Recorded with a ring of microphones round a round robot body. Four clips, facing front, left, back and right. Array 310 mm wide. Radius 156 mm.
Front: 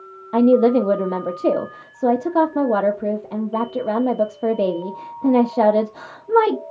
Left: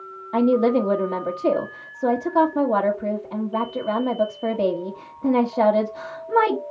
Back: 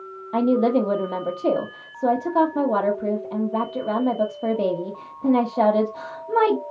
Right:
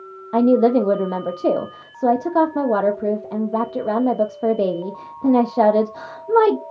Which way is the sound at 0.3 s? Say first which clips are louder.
Right 3 dB, front 5 dB; 50° right.